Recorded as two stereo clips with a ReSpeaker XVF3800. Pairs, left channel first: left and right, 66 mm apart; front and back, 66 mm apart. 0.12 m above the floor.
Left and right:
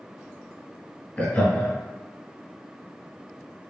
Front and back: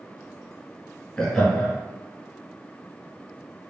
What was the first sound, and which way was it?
Laughter, 65° left.